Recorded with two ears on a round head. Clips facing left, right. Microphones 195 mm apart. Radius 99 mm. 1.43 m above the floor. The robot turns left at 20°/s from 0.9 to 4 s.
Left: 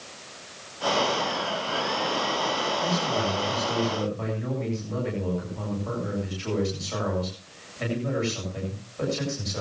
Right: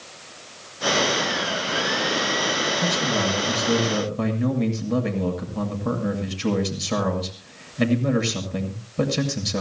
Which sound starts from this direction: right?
A man speaking, at 2.8 s.